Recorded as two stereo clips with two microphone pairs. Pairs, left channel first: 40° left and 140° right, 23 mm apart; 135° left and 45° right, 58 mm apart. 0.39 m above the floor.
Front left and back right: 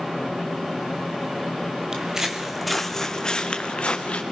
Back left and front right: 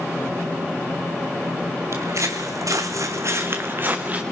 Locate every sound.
1.9 s footsteps: 75° right, 1.6 m; by 4.2 s 20° left, 1.9 m